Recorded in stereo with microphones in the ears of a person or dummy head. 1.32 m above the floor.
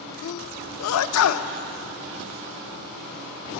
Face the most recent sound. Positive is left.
turn(degrees=75)  # may be behind; listen again after turning